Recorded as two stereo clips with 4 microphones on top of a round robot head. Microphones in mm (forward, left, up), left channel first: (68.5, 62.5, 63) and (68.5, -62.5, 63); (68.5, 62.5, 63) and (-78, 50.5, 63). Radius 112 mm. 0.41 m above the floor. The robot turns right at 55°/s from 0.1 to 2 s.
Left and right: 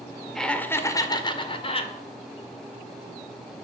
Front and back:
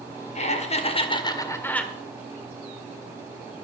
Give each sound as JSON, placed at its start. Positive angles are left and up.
{"t": 0.3, "sound": "laughter", "azimuth_deg": 5, "distance_m": 2.0}